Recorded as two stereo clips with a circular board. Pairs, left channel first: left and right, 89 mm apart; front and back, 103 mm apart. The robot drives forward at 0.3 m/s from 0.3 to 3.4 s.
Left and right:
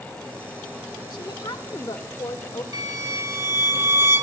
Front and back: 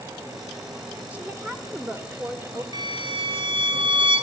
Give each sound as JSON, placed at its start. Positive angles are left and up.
{"t": 1.1, "sound": "a woman speaking", "azimuth_deg": 105, "distance_m": 1.1}
{"t": 2.7, "sound": "a violin", "azimuth_deg": -135, "distance_m": 0.5}